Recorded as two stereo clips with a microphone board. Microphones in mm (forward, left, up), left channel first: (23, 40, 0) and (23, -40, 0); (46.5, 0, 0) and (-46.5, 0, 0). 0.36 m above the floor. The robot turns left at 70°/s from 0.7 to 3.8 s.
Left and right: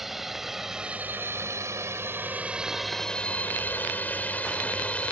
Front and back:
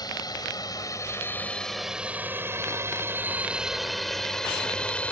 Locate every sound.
0.0 s a drone: 5° right; by 5.1 s 50° left